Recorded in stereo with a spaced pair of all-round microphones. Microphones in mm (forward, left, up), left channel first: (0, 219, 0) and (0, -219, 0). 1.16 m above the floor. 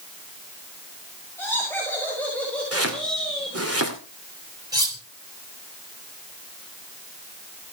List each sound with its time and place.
1.4 s laughter: 5° left (ahead or behind), 7 m; by 3.6 s centre (ahead or behind), 5 m
2.7 s chopping: 30° right (ahead or behind), 2.5 m
4.7 s cutlery clinking: 10° right (ahead or behind), 2.5 m